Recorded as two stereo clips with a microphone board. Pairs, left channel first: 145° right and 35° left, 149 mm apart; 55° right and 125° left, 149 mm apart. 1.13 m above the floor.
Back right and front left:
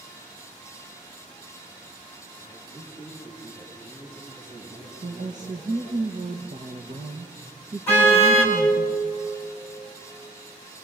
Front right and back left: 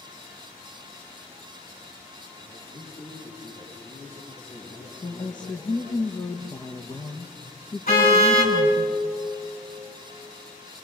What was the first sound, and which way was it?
A man speaking, 35° right.